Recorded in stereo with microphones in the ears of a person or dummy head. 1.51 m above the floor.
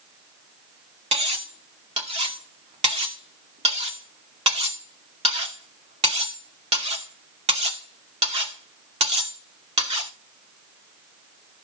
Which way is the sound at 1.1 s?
35° right (ahead or behind).